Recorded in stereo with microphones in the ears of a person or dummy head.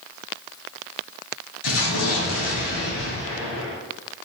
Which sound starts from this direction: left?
An explosion, at 1.6 s.